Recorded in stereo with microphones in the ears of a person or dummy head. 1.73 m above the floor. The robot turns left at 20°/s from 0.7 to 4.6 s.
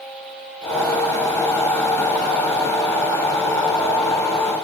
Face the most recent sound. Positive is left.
No sound to turn to.